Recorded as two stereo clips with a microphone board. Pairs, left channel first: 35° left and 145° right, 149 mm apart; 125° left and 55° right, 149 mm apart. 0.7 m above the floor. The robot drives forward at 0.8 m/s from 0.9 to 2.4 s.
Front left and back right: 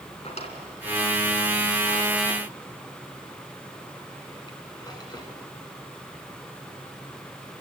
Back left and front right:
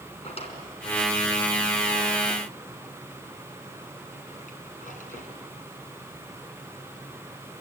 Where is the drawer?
80° left, 3.5 m; by 5.3 s 95° left, 3.5 m.